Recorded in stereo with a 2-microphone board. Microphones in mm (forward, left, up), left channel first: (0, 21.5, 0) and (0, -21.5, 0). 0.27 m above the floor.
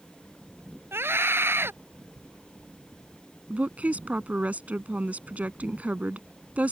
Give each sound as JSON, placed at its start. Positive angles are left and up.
{"t": 0.9, "sound": "a scream", "side_deg": -60}
{"t": 3.5, "sound": "a woman speaking", "side_deg": -35}